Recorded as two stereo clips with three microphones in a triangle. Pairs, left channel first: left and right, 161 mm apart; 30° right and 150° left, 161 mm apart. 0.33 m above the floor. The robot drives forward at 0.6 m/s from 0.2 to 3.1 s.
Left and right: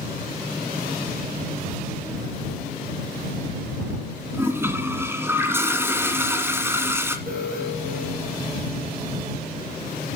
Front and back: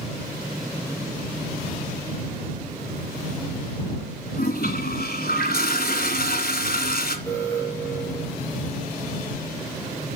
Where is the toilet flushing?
15° right, 1.6 m.